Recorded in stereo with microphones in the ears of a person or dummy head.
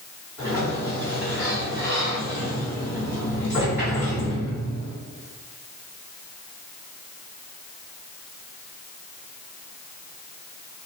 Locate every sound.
0.4 s a sliding door: 15° right (ahead or behind), 1.9 m